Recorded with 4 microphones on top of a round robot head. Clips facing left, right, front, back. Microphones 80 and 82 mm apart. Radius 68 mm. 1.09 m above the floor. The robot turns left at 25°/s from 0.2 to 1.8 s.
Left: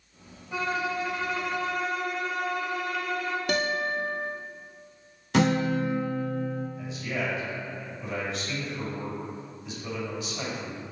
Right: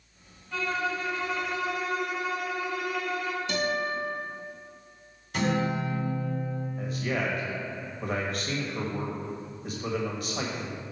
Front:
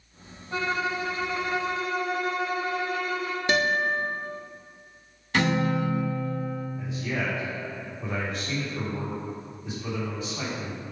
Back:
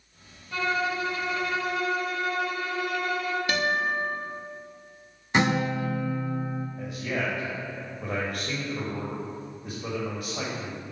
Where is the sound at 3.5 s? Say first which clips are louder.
Left 2 dB, front 4 dB; 55° left, 0.6 m.